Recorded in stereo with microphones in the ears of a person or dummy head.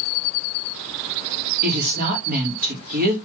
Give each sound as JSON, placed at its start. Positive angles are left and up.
{"t": 1.6, "sound": "a woman speaking", "side_deg": -45, "distance_m": 1.6}